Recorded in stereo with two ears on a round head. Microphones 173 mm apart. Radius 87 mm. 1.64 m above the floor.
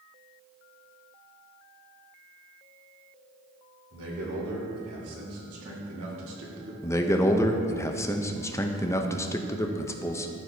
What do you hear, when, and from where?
3.9 s a man speaking: 85° right, 3 m; by 6.7 s 60° right (ahead or behind), 1.7 m
6.8 s a man speaking: 15° left (ahead or behind), 0.6 m